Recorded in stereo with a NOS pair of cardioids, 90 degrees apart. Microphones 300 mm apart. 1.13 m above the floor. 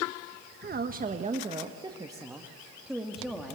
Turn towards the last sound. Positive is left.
turn(degrees=0)